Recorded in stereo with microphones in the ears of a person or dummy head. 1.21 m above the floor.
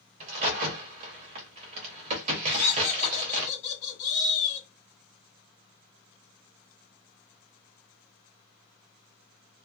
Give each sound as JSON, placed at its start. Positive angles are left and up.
{"t": 0.2, "sound": "a crack", "side_deg": -35, "distance_m": 0.9}
{"t": 2.5, "sound": "laughter", "side_deg": 40, "distance_m": 1.5}